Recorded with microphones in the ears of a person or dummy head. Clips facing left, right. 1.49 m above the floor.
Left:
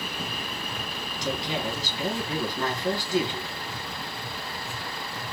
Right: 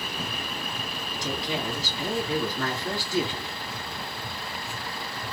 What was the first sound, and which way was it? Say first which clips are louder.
A woman speaking: left 1 dB; 15° left (ahead or behind).